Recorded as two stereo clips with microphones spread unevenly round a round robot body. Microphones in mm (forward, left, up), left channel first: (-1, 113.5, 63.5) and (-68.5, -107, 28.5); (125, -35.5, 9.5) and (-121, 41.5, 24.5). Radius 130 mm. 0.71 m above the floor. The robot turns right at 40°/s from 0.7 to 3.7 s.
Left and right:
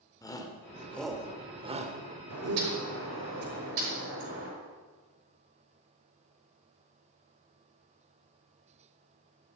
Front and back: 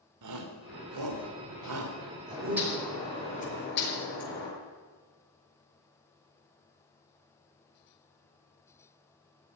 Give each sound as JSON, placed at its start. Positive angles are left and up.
{"t": 0.2, "sound": "a shout", "azimuth_deg": 150, "distance_m": 2.5}
{"t": 2.3, "sound": "a bird", "azimuth_deg": -125, "distance_m": 6.0}